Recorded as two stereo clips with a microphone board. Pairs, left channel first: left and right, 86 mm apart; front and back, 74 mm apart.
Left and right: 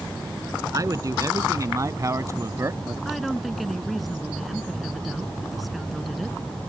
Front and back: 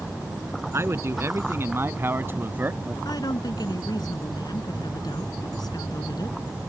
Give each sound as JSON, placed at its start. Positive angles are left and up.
{"t": 0.7, "sound": "a man speaking", "azimuth_deg": -135}
{"t": 3.0, "sound": "a woman speaking", "azimuth_deg": 0}